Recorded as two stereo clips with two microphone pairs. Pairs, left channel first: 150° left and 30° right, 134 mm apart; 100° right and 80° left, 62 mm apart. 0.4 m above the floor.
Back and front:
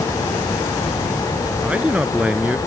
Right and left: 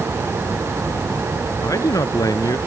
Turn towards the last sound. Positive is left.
turn(degrees=-110)